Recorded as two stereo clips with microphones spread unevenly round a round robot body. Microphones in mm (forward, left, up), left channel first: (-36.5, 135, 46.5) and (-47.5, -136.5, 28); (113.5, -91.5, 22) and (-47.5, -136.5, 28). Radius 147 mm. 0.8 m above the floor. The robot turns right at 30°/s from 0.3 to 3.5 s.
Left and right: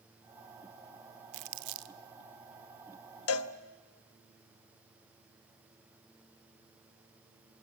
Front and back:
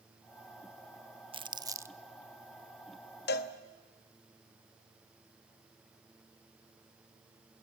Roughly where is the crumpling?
Right.